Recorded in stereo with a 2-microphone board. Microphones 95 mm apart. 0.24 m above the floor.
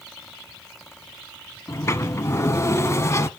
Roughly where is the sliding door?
Left.